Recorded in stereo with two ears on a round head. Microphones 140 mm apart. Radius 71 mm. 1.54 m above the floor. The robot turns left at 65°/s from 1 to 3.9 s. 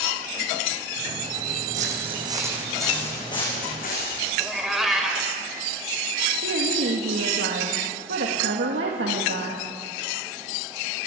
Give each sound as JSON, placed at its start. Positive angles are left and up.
{"t": 1.7, "sound": "footsteps", "side_deg": -55, "distance_m": 4.0}
{"t": 4.4, "sound": "a cat meowing", "side_deg": 0, "distance_m": 1.8}
{"t": 6.4, "sound": "a woman speaking", "side_deg": -80, "distance_m": 2.0}